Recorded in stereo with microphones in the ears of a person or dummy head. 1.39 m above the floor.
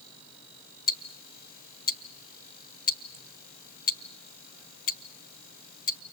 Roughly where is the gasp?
I don't hear a gasp.